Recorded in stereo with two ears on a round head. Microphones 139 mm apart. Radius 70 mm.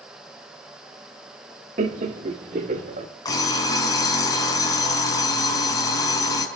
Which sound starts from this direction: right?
Laughter, at 1.8 s.